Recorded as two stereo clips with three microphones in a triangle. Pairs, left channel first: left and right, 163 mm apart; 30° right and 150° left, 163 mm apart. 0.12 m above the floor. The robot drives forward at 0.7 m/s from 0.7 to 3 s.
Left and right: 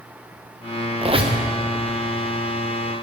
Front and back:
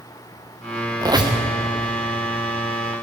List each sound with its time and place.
1.0 s a squeak: 145° right, 2.0 m